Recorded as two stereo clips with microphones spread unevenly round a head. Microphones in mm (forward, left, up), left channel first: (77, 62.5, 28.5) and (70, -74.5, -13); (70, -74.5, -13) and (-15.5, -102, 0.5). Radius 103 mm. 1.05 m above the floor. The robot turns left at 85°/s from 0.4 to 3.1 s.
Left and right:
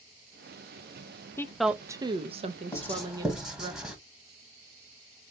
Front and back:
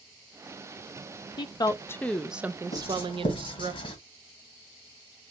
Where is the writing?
40° left, 1.3 m; by 4.0 s 5° left, 1.3 m.